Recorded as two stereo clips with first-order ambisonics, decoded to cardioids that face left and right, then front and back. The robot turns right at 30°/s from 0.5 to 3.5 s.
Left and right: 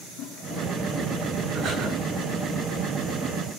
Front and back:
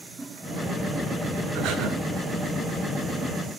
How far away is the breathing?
About 7.5 m.